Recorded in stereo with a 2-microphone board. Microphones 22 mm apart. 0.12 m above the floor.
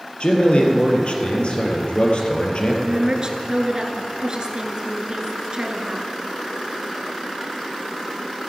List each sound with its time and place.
0.2 s a man speaking: 55° left (ahead or behind), 2 m
2.8 s a woman speaking: 40° right (ahead or behind), 1.4 m